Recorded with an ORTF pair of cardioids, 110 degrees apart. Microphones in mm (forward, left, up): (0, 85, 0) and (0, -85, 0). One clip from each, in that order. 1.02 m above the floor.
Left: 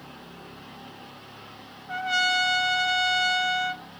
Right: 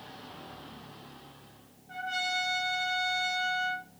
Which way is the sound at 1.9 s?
50° left.